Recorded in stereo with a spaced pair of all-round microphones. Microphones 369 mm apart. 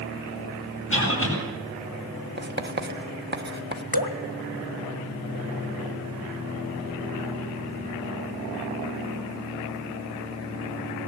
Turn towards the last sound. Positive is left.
turn(degrees=75)  # may be behind; listen again after turning